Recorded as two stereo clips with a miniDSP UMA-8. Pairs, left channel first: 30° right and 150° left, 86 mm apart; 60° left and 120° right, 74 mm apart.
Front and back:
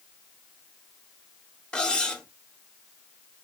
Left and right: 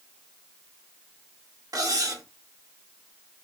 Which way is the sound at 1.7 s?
105° right.